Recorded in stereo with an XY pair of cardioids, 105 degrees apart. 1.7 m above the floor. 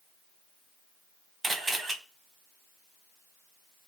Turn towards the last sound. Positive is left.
turn(degrees=-35)